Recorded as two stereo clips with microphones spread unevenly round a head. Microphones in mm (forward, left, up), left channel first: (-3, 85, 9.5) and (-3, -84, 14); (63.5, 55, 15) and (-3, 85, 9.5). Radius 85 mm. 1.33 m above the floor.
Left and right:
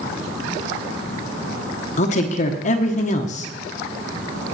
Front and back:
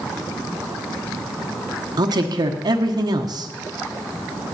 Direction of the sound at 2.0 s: 140° left.